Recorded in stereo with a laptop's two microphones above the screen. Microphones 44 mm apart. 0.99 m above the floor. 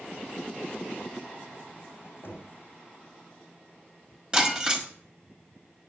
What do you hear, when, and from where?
2.2 s knocking: 50° left (ahead or behind), 3.5 m
4.3 s breaking glass: 20° right (ahead or behind), 1.6 m